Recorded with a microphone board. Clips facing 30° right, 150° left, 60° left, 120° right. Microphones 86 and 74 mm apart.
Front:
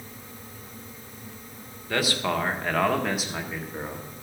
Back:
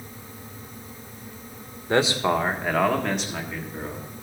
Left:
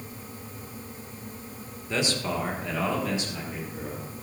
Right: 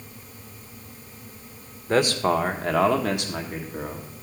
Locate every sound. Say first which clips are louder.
1.9 s a man speaking: back 5 dB, right 8 dB; 155° right, 1.1 m; by 4.1 s 100° right, 1.8 m